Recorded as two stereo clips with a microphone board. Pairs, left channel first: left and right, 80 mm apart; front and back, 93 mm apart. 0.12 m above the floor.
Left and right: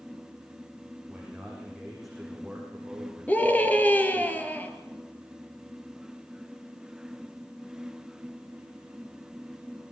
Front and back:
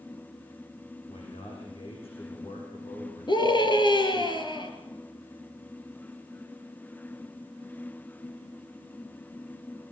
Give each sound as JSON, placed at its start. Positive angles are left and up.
{"t": 1.1, "sound": "a man speaking", "azimuth_deg": 0, "distance_m": 7.5}
{"t": 3.3, "sound": "a scream", "azimuth_deg": 20, "distance_m": 3.0}